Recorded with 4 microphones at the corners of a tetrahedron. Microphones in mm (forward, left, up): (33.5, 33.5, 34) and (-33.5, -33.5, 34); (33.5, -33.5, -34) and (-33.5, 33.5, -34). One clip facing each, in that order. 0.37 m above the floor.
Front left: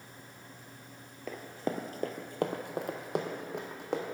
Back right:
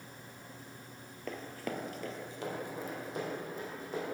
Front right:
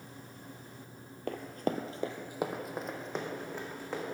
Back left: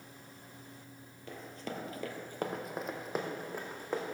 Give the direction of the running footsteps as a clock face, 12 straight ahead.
1 o'clock.